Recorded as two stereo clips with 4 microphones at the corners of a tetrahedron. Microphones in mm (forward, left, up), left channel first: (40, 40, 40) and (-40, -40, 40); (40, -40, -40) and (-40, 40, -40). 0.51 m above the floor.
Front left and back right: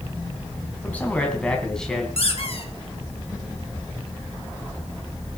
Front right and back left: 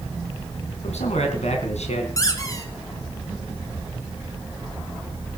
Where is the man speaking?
30° right, 3.5 m; by 2.1 s 40° right, 3.5 m.